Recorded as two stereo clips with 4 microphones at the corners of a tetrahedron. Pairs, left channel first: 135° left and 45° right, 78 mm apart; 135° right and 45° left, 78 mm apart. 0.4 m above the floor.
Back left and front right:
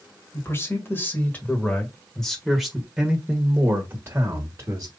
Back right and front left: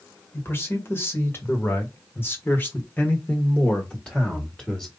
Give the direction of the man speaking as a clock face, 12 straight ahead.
6 o'clock.